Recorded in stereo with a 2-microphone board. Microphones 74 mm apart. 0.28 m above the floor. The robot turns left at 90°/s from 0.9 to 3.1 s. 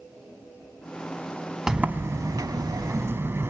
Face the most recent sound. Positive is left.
turn(degrees=-140)